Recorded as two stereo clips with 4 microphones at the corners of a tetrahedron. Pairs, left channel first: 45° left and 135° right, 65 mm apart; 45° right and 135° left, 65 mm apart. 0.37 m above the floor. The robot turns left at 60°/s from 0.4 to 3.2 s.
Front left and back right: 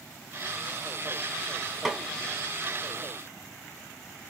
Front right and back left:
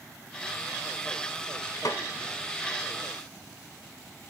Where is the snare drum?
50° right, 0.5 m; by 2.0 s 60° right, 0.5 m.